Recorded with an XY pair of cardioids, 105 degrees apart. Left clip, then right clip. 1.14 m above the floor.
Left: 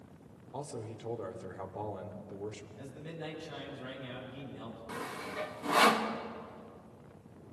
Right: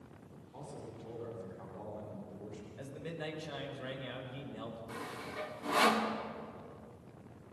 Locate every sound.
0.5 s a man speaking: 65° left, 2.5 m
2.8 s a man speaking: 40° right, 5 m
4.9 s sawing: 20° left, 1.6 m